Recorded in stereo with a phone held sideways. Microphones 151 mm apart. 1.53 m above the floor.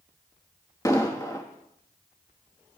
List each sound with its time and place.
0.8 s an explosion: 20° left (ahead or behind), 1.4 m